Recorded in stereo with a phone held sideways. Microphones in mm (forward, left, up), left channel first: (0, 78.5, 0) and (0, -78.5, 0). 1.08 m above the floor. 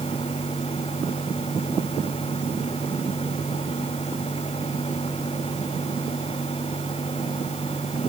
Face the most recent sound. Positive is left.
turn(degrees=40)  # may be behind; listen again after turning